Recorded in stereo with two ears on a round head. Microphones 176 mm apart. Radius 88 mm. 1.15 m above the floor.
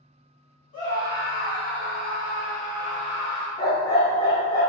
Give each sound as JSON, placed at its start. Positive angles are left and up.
{"t": 0.7, "sound": "a scream", "side_deg": 40, "distance_m": 1.6}
{"t": 3.6, "sound": "a dog barking", "side_deg": 20, "distance_m": 0.5}